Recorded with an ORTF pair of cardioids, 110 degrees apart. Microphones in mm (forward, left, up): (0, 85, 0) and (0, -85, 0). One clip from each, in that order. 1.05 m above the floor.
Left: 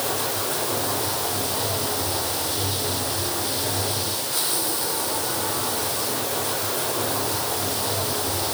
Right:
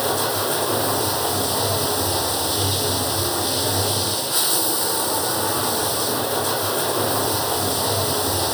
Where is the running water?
70° right.